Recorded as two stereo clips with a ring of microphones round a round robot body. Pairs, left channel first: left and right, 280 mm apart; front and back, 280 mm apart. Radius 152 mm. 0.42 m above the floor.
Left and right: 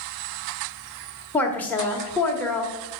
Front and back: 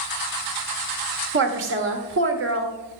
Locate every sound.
1.3 s a woman speaking: 170° left, 1.7 m